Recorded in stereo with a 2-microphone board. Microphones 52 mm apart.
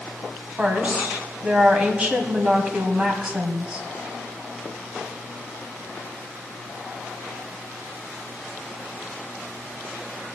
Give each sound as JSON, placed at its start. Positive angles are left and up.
{"t": 0.6, "sound": "a woman speaking", "side_deg": -20, "distance_m": 2.0}